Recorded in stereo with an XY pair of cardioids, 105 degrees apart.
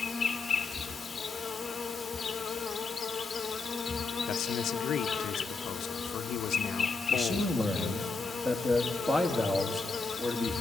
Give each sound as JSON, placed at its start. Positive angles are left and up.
{"t": 0.0, "sound": "an insect", "azimuth_deg": 35, "distance_m": 1.5}
{"t": 4.3, "sound": "a man speaking", "azimuth_deg": 70, "distance_m": 0.8}
{"t": 7.1, "sound": "a man speaking", "azimuth_deg": 0, "distance_m": 2.0}